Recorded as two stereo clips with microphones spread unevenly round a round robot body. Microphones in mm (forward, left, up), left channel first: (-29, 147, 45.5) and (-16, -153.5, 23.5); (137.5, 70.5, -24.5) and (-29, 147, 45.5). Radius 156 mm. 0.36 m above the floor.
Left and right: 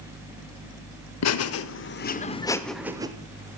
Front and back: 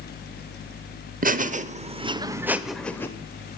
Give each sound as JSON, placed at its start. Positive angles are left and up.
{"t": 1.2, "sound": "laughter", "azimuth_deg": 105, "distance_m": 1.2}